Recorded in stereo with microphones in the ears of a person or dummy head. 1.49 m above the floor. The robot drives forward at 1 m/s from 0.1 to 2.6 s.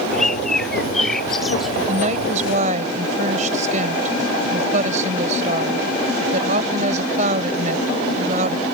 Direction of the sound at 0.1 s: Centre (ahead or behind).